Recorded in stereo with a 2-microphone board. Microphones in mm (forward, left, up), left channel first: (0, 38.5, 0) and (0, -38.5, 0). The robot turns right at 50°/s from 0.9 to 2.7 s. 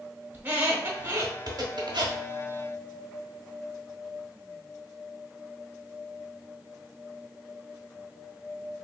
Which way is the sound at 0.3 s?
25° right (ahead or behind).